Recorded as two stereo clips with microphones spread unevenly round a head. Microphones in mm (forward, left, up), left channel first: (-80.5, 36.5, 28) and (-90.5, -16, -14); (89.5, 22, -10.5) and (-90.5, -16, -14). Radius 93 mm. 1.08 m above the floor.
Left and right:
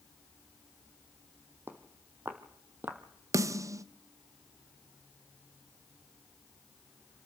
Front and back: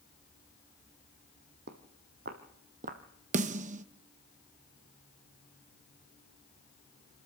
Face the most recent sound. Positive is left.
turn(degrees=-115)